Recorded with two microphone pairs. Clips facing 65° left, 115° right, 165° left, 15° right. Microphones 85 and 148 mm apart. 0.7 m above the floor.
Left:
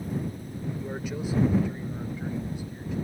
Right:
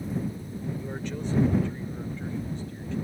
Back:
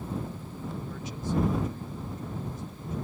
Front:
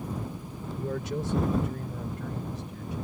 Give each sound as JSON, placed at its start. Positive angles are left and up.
{"t": 0.8, "sound": "a man speaking", "azimuth_deg": -15}